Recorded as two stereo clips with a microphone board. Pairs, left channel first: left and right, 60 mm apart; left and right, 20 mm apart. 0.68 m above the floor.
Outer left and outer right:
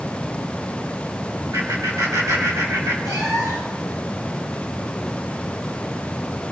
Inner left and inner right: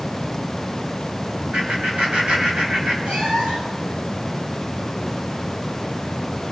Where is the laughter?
55° right (ahead or behind), 4.5 m.